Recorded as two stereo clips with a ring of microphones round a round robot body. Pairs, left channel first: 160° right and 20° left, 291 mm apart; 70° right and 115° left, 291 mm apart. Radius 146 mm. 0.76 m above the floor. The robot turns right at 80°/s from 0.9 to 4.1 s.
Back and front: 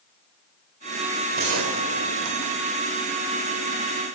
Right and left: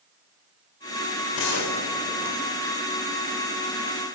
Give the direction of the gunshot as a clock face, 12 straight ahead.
1 o'clock.